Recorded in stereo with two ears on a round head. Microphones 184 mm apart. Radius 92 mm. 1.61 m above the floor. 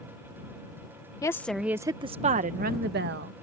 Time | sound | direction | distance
1.2 | a woman speaking | 20° left (ahead or behind) | ?